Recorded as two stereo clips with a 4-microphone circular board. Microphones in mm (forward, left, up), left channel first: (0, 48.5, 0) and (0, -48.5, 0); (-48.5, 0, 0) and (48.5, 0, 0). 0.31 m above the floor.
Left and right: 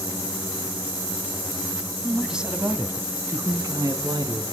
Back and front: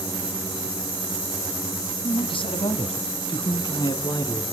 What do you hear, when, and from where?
2.0 s a man speaking: straight behind, 2 m; by 4.5 s 130° right, 3 m